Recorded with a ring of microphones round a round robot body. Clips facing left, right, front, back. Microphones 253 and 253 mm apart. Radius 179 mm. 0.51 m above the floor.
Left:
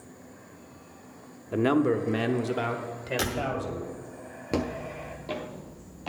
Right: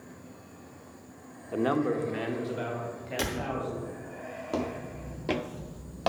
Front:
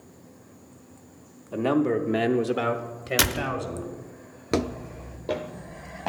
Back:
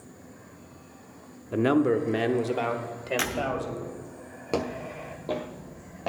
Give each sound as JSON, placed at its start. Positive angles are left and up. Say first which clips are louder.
{"t": 1.5, "sound": "a man speaking", "louder": "left 4 dB, back 1 dB", "azimuth_deg": 140, "distance_m": 0.7}
{"t": 3.2, "sound": "a door slam", "louder": "even, front 3 dB", "azimuth_deg": 5, "distance_m": 0.6}
{"t": 4.5, "sound": "footsteps", "louder": "left 3 dB, front 3 dB", "azimuth_deg": 55, "distance_m": 0.5}